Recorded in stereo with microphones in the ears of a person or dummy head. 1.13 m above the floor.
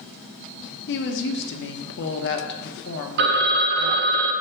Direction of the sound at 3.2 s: 65° right (ahead or behind).